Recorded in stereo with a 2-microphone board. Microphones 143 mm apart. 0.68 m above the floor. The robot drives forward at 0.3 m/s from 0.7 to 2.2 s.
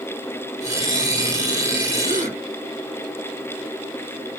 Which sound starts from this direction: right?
A gasp, at 2.0 s.